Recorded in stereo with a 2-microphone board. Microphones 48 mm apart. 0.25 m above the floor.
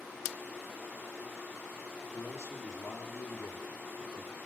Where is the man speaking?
75° left (ahead or behind), 4.5 m.